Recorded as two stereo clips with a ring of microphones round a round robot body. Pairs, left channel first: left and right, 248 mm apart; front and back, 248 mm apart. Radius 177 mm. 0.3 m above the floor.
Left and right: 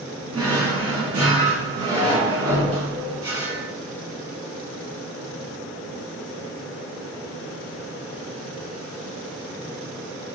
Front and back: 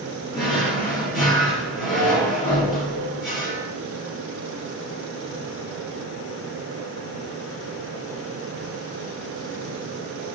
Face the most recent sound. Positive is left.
turn(degrees=-75)